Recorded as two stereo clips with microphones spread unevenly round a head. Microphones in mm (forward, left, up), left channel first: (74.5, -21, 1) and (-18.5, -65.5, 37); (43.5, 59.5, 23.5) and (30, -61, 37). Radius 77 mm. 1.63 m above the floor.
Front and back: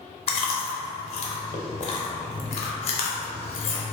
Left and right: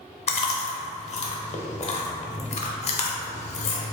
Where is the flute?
I don't hear a flute.